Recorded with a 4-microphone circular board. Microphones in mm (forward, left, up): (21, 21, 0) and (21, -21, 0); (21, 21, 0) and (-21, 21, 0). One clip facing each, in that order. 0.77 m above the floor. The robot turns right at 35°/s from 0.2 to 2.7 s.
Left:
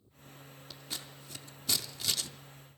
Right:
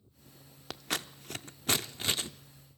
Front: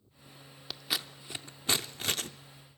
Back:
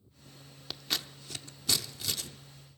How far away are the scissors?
About 0.5 m.